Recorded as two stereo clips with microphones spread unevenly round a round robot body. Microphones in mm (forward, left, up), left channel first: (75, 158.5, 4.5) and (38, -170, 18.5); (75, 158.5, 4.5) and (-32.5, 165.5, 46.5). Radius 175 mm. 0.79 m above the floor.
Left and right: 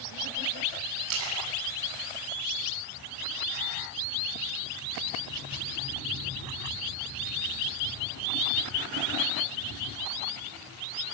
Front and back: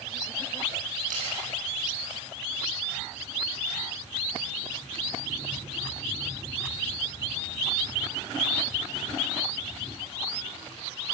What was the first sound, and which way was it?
A splash, 145° right.